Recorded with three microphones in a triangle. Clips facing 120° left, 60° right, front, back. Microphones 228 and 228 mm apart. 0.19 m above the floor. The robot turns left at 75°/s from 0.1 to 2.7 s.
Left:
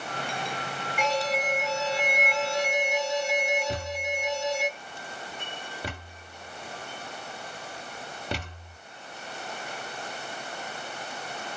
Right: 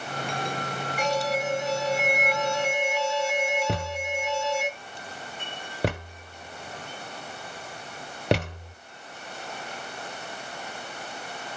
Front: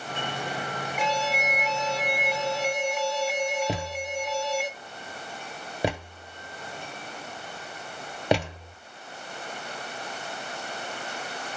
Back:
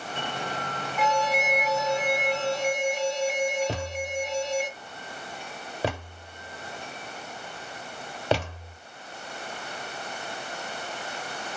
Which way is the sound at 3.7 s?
75° right.